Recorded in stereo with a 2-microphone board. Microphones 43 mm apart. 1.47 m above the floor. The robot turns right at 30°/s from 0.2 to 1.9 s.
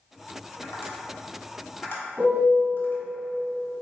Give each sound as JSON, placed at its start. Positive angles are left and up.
{"t": 0.6, "sound": "tapping", "side_deg": 65, "distance_m": 1.3}
{"t": 2.2, "sound": "a piano", "side_deg": -50, "distance_m": 1.5}